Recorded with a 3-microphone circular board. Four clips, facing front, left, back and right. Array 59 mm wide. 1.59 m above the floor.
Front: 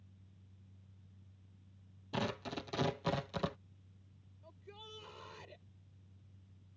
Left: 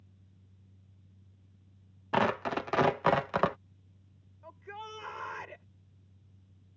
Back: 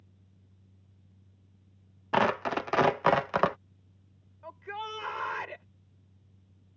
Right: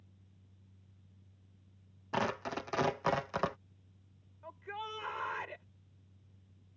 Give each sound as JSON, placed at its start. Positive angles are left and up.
{"t": 2.1, "sound": "tearing paper", "azimuth_deg": 160}
{"t": 4.4, "sound": "a shout", "azimuth_deg": -165}